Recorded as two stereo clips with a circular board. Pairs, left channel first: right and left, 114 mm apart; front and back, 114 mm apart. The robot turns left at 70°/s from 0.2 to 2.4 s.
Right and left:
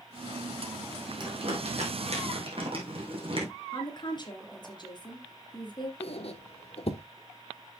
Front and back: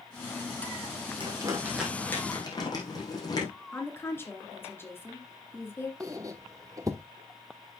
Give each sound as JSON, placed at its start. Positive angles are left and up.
{"t": 1.2, "sound": "crumpling", "azimuth_deg": 140, "distance_m": 3.5}
{"t": 3.7, "sound": "a woman speaking", "azimuth_deg": -60, "distance_m": 2.5}
{"t": 6.0, "sound": "a squeak", "azimuth_deg": -120, "distance_m": 0.8}